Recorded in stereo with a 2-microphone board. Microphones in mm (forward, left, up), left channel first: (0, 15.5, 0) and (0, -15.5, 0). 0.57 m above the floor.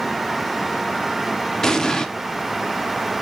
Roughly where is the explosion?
Centre.